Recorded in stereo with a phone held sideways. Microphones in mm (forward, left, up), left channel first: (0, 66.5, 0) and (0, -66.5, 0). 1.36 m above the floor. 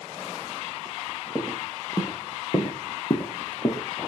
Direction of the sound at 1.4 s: 25° left (ahead or behind).